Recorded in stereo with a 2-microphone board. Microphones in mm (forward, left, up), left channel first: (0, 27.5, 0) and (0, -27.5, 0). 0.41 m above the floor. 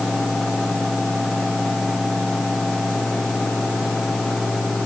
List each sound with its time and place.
Only background noise.